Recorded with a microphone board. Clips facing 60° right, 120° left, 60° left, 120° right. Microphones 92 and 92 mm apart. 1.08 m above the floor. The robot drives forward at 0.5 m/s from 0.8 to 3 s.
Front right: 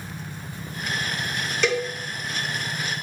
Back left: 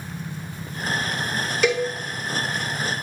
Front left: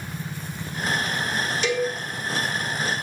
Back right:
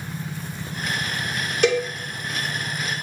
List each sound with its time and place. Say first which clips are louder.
1.6 s a cowbell: back left 3 dB, back right 5 dB; 155° right, 1.8 m